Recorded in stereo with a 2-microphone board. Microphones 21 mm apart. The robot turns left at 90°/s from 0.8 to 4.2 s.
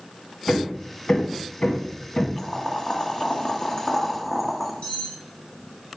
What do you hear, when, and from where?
0.5 s hammering: 25° left (ahead or behind), 1.6 m; by 2.3 s 20° left (ahead or behind), 1.6 m
2.4 s boiling: 155° left, 1.2 m; by 4.7 s 10° right, 1.2 m
4.8 s cutlery clinking: 75° left (ahead or behind), 3.5 m